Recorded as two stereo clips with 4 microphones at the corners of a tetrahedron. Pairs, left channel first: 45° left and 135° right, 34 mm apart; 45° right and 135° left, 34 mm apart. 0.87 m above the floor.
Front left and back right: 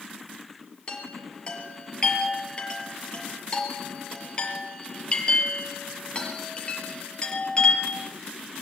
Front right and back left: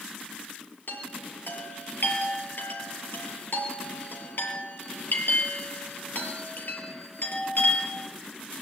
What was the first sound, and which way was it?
A chime, 15° right.